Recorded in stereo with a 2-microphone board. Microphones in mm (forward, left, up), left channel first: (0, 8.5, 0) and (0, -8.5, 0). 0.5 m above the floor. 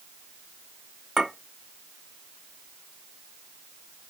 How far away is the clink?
About 1.8 m.